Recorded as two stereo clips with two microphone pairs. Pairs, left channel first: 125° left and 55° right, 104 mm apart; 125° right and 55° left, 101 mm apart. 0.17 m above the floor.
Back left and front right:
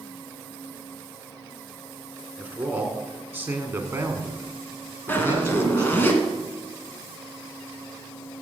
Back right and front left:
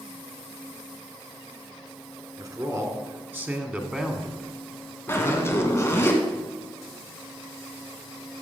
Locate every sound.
2.4 s a man speaking: 15° left, 1.7 m; by 6.1 s 100° right, 1.5 m
5.1 s a zipper: straight behind, 1.5 m